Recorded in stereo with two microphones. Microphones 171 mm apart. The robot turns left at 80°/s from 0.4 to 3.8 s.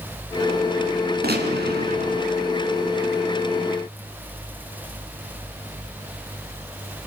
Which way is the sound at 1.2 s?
70° right.